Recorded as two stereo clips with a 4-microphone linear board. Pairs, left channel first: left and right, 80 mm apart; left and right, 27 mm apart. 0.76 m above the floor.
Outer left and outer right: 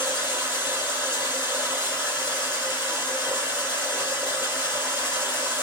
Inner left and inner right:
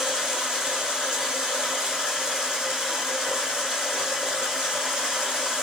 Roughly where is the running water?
Right.